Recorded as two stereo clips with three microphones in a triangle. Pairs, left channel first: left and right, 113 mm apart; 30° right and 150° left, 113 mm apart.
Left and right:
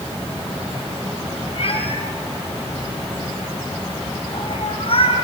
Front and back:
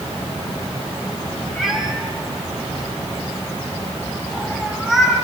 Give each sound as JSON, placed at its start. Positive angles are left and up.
{"t": 1.6, "sound": "a cat meowing", "azimuth_deg": 65, "distance_m": 2.5}